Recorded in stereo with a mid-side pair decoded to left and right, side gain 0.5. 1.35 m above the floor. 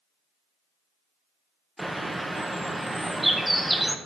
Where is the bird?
10° right, 0.8 m.